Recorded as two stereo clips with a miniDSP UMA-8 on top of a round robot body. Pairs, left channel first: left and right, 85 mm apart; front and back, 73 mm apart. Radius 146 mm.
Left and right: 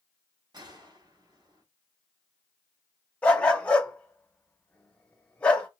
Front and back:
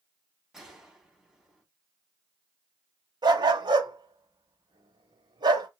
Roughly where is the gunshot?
Right.